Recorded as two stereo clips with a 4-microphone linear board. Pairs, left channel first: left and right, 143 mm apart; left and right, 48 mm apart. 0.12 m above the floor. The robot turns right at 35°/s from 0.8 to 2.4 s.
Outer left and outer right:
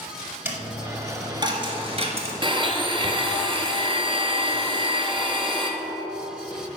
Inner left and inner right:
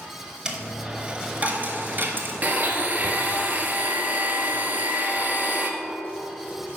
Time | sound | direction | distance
0.5 | a dropped coin | 20° right (ahead or behind) | 1.0 m
2.4 | a blender | 35° right (ahead or behind) | 0.8 m